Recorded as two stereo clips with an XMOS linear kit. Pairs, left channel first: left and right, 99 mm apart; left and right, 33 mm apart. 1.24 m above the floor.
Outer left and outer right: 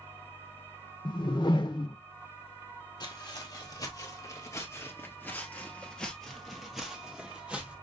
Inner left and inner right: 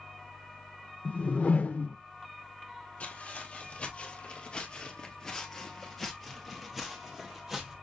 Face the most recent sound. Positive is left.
turn(degrees=-15)  # may be behind; listen again after turning